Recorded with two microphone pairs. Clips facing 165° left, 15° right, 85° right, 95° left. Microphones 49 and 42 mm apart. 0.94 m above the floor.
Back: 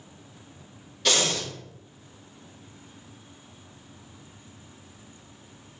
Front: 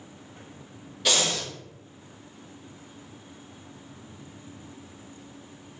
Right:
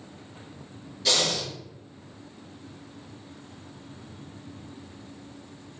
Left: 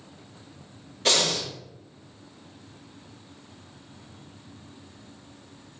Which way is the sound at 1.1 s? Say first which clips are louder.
Back 1 dB, left 2 dB; 65° left.